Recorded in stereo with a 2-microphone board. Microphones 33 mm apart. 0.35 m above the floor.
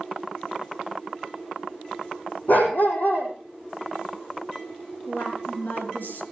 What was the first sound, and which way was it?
A dog barking, 60° left (ahead or behind).